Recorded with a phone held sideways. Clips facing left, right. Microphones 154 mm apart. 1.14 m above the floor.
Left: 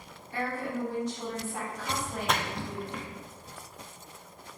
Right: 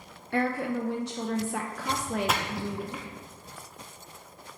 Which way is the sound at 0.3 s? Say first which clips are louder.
Right 5 dB; 85° right.